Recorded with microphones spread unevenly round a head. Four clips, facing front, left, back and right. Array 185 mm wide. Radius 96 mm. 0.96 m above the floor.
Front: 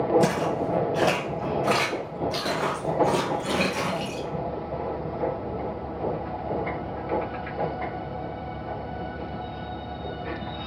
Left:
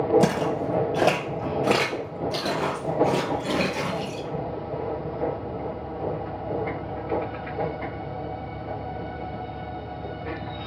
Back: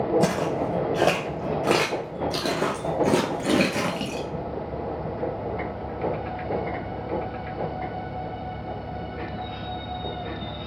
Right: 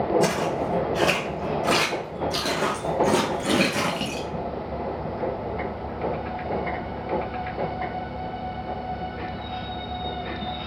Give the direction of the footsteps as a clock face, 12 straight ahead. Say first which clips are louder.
Even, even; 8 o'clock.